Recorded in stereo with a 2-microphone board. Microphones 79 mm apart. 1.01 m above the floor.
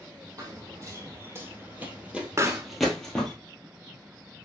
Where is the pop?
35° right (ahead or behind), 0.5 m.